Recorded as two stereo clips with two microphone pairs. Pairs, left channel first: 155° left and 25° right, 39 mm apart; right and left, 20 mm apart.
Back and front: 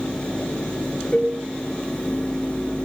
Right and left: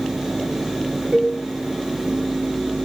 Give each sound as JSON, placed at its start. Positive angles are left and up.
{"t": 1.1, "sound": "a cowbell", "azimuth_deg": 85, "distance_m": 7.0}